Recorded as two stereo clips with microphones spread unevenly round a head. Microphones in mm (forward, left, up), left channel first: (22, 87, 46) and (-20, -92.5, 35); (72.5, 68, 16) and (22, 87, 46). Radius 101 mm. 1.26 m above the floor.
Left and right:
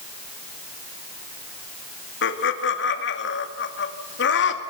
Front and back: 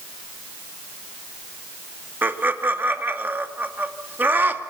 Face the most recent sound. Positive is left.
turn(degrees=105)